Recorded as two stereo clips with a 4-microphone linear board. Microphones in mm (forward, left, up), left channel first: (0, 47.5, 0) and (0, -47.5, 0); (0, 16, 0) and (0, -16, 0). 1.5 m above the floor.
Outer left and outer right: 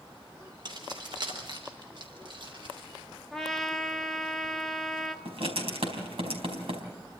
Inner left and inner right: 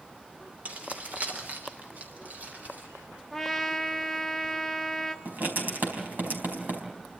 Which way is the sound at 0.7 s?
50° right (ahead or behind).